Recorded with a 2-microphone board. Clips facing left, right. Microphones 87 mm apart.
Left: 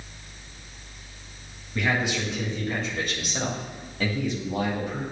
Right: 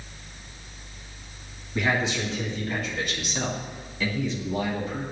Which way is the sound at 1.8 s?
Centre (ahead or behind).